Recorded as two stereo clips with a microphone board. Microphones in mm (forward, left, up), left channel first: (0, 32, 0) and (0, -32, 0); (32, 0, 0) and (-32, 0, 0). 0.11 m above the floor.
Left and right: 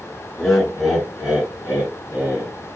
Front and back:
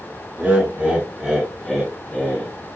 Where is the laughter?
165° left, 1.4 m; by 2.5 s 65° right, 1.5 m.